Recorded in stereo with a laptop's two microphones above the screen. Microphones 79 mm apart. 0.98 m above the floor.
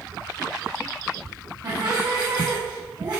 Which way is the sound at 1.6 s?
55° right (ahead or behind).